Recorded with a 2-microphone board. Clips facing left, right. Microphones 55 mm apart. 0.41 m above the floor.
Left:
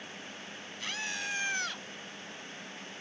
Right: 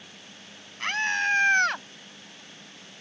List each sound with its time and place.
0.8 s a scream: 50° right (ahead or behind); by 1.9 s 55° right (ahead or behind)